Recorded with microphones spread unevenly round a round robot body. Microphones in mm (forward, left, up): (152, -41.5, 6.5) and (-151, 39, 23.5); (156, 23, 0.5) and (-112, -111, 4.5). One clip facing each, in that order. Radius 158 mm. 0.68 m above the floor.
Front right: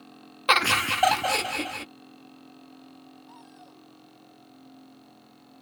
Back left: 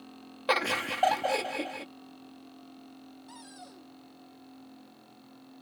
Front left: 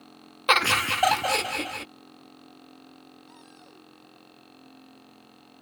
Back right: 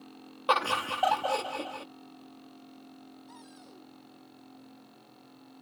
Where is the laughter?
25° left.